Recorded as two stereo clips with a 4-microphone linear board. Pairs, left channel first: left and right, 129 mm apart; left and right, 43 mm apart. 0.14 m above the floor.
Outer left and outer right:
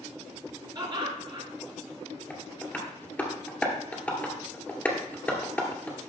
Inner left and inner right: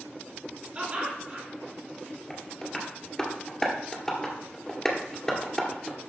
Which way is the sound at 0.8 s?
35° right (ahead or behind).